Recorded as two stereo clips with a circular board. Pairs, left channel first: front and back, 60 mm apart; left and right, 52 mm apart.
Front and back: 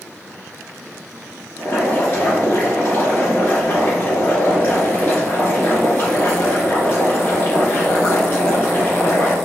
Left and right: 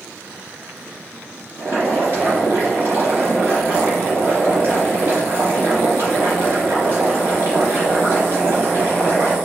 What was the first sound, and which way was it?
Boiling, 50° right.